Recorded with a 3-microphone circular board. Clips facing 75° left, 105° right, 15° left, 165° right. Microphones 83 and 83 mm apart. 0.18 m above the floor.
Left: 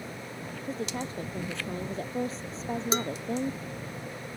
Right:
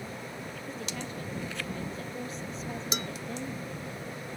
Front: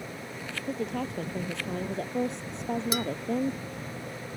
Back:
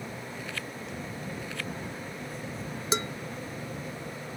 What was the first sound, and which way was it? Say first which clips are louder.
A woman speaking: left 6 dB, front 7 dB; 20° left.